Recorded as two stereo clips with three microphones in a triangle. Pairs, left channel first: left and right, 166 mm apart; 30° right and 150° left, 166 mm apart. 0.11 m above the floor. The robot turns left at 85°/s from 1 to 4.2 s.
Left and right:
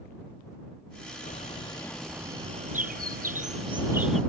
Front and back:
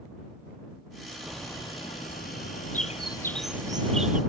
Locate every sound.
1.2 s a bird: 70° left; by 4.2 s 175° left